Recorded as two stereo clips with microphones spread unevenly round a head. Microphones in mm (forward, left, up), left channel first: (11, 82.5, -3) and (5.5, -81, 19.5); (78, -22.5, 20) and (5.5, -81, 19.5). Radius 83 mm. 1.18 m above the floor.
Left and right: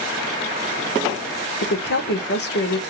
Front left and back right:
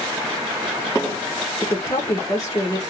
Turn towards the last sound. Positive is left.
turn(degrees=110)